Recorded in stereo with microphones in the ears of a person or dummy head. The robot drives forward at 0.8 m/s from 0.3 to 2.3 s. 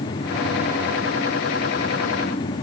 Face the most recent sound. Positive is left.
No sound to turn to.